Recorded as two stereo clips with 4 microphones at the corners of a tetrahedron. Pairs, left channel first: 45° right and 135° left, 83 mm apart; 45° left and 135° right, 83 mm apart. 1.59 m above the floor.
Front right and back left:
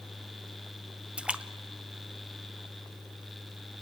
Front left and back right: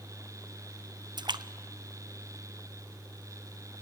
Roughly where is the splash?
Behind right.